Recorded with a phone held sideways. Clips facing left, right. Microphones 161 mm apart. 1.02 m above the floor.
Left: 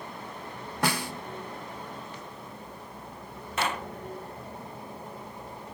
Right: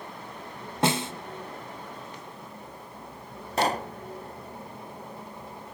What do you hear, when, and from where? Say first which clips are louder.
0.8 s a snare drum: right 4 dB; 25° right (ahead or behind), 1.1 m
3.6 s a pop: right 5 dB; 40° right (ahead or behind), 0.9 m